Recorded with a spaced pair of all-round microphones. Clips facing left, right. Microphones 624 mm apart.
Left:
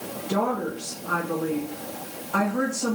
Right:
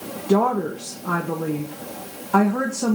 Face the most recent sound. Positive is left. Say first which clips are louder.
# right 7 dB
turn(degrees=-75)  # may be behind; listen again after turning